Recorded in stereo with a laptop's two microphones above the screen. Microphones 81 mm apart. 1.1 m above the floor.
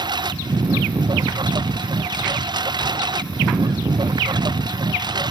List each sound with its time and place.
0.0 s a lawn mower: 60° right (ahead or behind)